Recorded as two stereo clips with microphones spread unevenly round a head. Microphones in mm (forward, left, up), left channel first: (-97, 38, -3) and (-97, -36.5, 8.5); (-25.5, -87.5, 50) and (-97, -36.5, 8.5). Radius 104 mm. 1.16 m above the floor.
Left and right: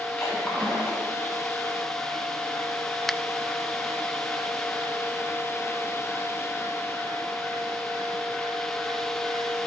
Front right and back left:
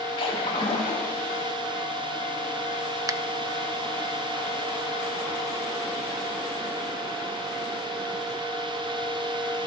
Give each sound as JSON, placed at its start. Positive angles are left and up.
{"t": 0.2, "sound": "a splash", "azimuth_deg": 5, "distance_m": 2.5}
{"t": 3.1, "sound": "a finger snap", "azimuth_deg": 175, "distance_m": 0.6}